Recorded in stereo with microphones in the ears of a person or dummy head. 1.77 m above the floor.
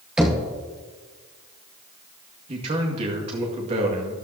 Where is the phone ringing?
I don't hear a phone ringing.